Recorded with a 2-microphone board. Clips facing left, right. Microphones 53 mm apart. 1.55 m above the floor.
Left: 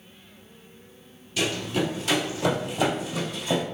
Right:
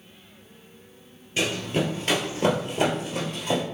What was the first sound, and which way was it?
Running footsteps, 35° right (ahead or behind).